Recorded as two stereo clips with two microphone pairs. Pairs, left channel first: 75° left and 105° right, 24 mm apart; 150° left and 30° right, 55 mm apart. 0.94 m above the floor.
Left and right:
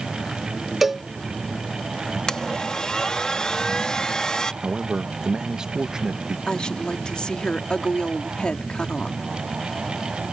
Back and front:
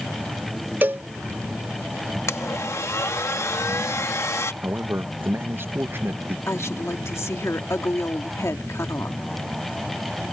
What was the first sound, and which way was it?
A cowbell, 40° right.